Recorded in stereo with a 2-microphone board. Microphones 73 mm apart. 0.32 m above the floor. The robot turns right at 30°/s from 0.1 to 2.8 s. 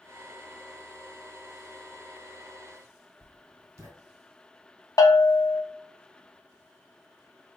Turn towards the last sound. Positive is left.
turn(degrees=55)  # may be behind; listen again after turning